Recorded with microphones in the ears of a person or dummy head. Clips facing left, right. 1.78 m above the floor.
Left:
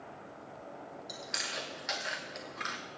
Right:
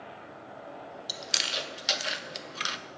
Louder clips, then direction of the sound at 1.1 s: Right 5 dB; 45° right (ahead or behind).